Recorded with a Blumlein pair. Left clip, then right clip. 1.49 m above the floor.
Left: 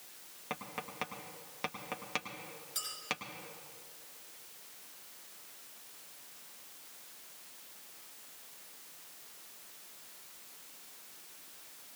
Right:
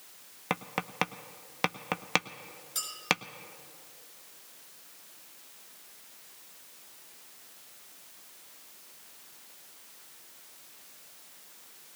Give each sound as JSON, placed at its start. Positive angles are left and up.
{"t": 0.5, "sound": "tapping", "azimuth_deg": -30, "distance_m": 0.6}
{"t": 2.8, "sound": "a clink", "azimuth_deg": -65, "distance_m": 6.0}